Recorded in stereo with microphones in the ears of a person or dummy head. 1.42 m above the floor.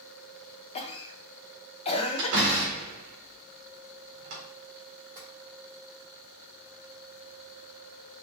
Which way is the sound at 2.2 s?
55° right (ahead or behind).